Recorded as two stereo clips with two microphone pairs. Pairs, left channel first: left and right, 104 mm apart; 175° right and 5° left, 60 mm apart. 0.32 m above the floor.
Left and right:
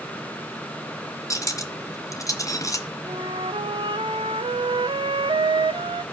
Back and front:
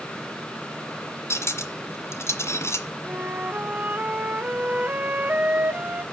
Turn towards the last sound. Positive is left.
turn(degrees=-60)